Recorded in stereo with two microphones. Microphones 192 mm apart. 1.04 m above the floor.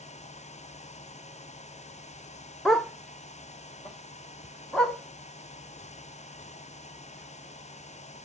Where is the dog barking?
5° left (ahead or behind), 0.7 m; by 8.3 s centre (ahead or behind), 4.5 m.